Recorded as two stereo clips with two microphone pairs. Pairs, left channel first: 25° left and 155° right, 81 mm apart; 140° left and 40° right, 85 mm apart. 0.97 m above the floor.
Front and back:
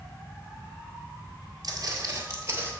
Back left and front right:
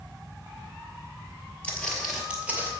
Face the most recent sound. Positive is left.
turn(degrees=-100)